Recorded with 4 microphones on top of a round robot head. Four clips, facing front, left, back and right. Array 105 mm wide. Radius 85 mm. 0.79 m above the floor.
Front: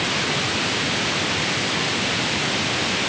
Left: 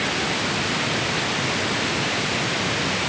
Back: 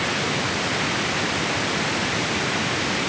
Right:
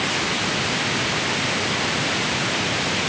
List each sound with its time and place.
Only background noise.